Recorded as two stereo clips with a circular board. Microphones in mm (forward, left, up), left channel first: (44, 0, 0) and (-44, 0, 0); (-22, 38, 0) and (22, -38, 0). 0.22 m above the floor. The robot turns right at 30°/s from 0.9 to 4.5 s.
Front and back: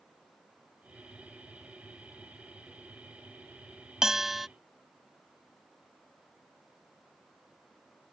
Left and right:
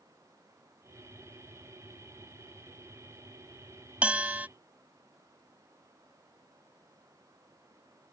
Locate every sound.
4.0 s a bell: 110° right; by 4.5 s 95° right